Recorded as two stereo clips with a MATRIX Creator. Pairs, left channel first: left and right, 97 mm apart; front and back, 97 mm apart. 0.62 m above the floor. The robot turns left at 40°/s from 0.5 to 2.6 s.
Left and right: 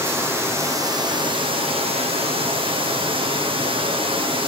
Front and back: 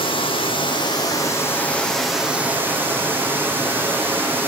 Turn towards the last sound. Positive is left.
turn(degrees=-110)